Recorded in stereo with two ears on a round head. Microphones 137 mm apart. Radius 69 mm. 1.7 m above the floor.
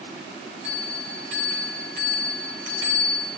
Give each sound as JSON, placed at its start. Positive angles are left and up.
{"t": 0.6, "sound": "a bell", "side_deg": -80, "distance_m": 5.5}